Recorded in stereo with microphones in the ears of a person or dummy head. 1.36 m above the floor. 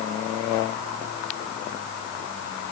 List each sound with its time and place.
Only background noise.